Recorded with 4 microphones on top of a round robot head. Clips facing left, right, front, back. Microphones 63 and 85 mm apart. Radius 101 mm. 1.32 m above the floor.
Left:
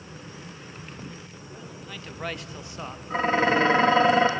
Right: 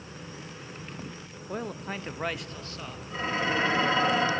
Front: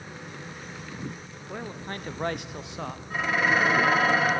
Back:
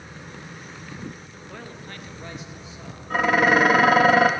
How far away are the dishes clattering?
About 1.0 m.